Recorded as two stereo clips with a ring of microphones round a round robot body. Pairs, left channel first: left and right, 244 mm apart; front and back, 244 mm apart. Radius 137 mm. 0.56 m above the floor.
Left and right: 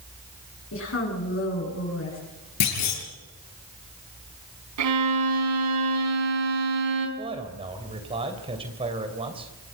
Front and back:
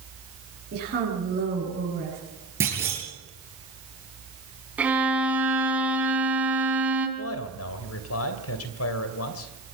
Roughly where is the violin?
Right.